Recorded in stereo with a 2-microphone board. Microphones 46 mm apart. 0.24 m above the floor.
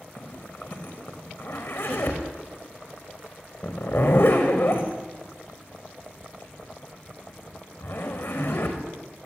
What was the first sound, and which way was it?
A zipper, 65° left (ahead or behind).